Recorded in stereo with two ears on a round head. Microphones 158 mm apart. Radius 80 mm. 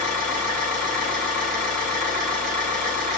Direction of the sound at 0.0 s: 60° right (ahead or behind).